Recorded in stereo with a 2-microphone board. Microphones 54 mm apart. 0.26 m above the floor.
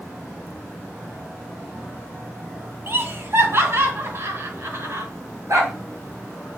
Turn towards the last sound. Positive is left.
turn(degrees=-65)  # may be behind; listen again after turning